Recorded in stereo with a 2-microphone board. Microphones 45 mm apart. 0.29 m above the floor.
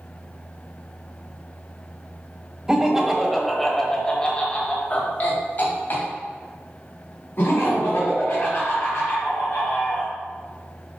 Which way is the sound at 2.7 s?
15° right (ahead or behind).